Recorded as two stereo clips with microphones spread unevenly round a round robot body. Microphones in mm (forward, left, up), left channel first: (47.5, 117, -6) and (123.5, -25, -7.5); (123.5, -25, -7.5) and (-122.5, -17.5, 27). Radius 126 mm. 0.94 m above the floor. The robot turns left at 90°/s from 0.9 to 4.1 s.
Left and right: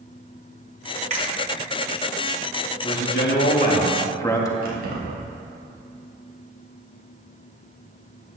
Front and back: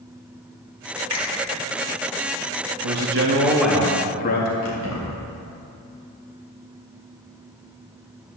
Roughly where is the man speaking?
Behind.